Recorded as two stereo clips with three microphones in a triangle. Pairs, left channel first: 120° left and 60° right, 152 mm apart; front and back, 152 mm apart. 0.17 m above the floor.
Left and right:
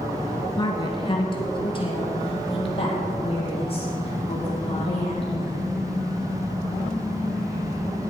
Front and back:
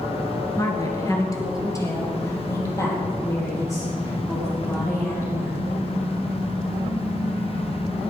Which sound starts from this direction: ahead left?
A woman speaking, at 0.6 s.